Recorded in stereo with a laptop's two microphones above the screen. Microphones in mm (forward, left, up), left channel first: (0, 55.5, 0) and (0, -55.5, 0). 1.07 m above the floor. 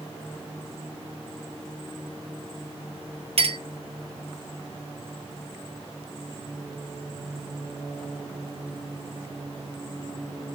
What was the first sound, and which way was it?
A clink, 60° right (ahead or behind).